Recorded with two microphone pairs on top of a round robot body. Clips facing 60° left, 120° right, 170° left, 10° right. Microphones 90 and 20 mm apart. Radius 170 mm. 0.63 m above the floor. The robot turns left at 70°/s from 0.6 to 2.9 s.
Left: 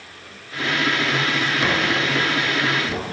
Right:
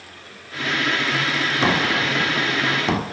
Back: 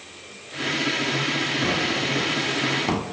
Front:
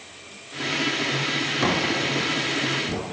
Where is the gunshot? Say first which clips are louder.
Right 3 dB, front 1 dB; 60° right, 1.5 m; by 3.0 s 150° right, 1.5 m.